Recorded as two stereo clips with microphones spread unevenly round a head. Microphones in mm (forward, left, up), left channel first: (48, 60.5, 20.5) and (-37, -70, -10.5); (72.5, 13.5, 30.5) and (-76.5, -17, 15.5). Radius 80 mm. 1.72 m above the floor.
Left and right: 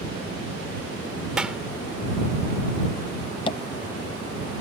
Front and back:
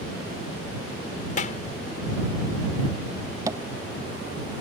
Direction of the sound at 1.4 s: 35° right.